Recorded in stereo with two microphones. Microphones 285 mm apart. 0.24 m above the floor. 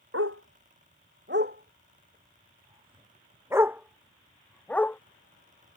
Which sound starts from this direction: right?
A dog barking, at 0.1 s.